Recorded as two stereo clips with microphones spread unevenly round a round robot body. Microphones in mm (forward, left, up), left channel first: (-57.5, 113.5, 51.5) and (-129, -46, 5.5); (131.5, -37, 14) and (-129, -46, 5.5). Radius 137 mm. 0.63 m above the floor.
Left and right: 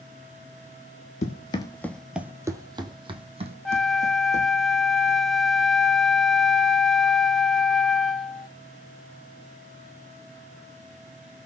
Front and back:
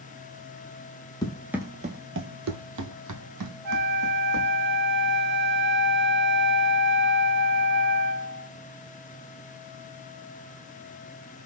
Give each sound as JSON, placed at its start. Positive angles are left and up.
{"t": 1.2, "sound": "running footsteps", "azimuth_deg": 75, "distance_m": 0.9}
{"t": 3.6, "sound": "a flute", "azimuth_deg": 160, "distance_m": 0.7}